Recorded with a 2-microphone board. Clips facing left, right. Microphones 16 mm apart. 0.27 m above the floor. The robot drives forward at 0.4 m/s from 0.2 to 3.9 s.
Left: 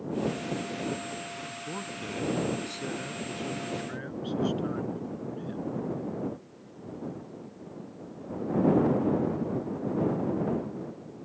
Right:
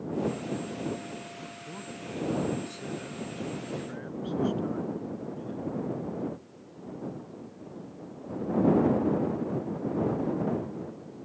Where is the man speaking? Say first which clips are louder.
Left 4 dB; 30° left (ahead or behind); by 5.6 s 20° left (ahead or behind).